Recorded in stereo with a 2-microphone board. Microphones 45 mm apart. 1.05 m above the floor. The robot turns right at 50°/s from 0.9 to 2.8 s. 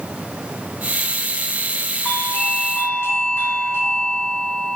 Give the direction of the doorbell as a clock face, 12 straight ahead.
11 o'clock.